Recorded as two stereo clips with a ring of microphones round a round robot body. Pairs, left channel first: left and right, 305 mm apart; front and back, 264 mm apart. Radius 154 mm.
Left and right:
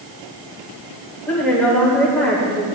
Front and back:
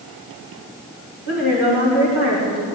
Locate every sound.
1.3 s a woman speaking: 175° left, 2.5 m